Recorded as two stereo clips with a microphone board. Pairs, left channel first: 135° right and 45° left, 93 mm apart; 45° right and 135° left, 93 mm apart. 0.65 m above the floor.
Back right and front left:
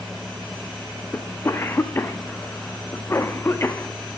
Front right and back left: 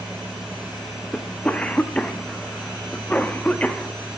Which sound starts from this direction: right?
A cough, at 1.1 s.